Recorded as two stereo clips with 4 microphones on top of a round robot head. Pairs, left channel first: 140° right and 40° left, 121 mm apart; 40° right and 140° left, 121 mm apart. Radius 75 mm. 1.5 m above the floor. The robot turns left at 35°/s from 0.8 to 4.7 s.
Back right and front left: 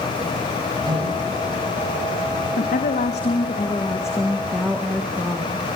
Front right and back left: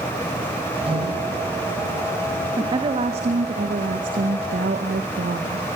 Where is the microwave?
95° left, 6.5 m; by 2.5 s 40° left, 6.5 m.